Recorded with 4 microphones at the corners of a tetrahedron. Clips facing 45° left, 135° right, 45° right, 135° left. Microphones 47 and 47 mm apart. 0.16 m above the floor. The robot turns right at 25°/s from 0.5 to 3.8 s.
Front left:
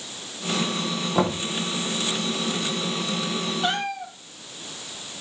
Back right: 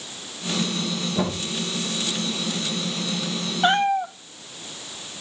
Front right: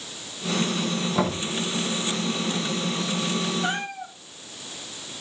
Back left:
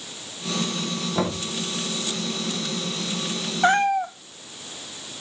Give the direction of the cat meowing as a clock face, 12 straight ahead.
6 o'clock.